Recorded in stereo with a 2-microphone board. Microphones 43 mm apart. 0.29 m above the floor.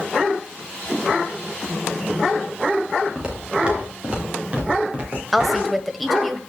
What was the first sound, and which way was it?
Footsteps, 20° right (ahead or behind).